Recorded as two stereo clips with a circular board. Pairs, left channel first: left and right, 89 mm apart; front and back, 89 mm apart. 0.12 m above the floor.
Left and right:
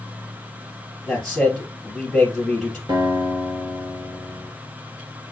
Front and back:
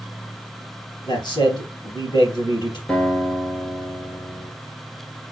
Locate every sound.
1.1 s a man speaking: 5° left, 3 m
2.9 s a guitar: 75° right, 1.7 m